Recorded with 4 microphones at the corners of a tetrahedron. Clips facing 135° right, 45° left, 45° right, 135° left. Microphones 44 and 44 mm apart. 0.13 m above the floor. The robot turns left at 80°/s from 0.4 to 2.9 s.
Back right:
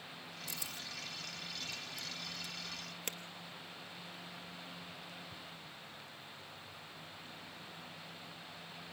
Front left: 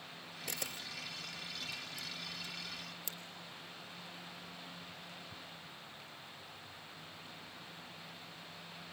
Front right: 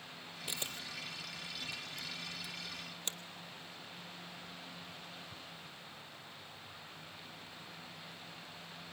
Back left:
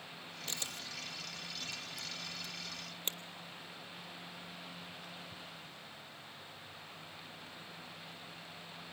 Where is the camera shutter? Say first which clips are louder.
Front left 3 dB, front right 1 dB; 30° left, 0.9 m; by 3.2 s 165° right, 0.9 m.